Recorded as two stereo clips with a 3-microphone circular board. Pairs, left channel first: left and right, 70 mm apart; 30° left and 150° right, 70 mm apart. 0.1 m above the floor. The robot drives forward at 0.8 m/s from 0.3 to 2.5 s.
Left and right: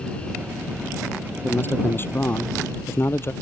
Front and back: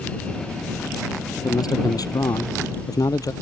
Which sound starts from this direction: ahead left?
A man speaking, at 1.4 s.